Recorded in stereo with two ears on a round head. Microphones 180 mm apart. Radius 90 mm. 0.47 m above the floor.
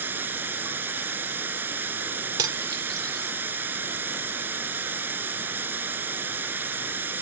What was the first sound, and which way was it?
Running water, 10° right (ahead or behind).